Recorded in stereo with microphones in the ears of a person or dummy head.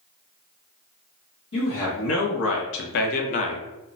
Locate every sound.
1.5 s a man speaking: 55° left (ahead or behind), 1.0 m; by 3.6 s 30° left (ahead or behind), 0.7 m